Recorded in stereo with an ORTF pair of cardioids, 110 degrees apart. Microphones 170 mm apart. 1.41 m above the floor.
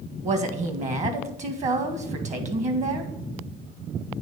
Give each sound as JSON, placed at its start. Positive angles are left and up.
{"t": 0.2, "sound": "a woman speaking", "azimuth_deg": -45, "distance_m": 1.8}